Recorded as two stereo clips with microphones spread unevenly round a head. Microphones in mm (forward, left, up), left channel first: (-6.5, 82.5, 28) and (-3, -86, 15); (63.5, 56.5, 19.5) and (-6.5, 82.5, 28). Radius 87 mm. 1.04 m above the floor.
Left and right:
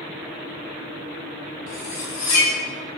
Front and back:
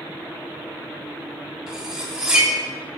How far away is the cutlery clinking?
About 1.5 m.